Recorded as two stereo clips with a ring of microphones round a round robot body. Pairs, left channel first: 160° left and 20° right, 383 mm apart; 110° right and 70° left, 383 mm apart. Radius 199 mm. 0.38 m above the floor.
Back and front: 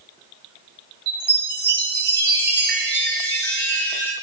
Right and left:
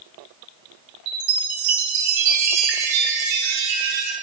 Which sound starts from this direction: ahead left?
A chime, at 1.1 s.